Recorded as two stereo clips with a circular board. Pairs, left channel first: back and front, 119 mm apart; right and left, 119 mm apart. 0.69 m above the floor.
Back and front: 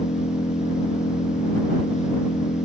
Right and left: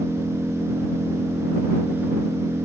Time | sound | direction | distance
0.0 | an engine running | 165° left | ?